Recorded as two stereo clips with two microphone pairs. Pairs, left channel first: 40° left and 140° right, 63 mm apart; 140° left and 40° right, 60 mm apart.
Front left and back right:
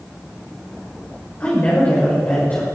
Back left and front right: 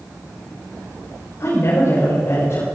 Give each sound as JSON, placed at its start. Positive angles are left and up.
{"t": 1.4, "sound": "a woman speaking", "azimuth_deg": 105, "distance_m": 5.5}